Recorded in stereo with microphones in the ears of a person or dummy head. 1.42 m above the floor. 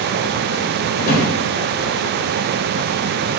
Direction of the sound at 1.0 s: 60° left (ahead or behind).